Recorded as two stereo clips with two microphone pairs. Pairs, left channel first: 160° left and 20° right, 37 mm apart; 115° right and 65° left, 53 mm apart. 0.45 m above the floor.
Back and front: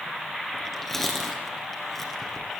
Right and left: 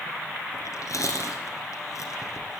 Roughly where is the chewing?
Behind right.